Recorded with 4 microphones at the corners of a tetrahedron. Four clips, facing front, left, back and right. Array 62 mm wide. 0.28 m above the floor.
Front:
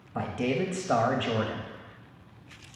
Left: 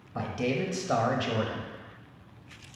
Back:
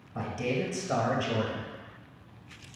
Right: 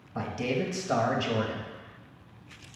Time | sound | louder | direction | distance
0.1 | a man speaking | even, front 3 dB | 5° left | 0.9 m